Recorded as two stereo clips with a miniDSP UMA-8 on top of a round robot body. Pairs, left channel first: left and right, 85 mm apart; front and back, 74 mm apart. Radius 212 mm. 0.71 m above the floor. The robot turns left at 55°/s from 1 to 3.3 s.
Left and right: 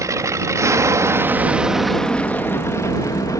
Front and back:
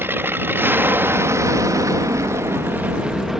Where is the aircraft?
130° right; by 3.4 s 95° left.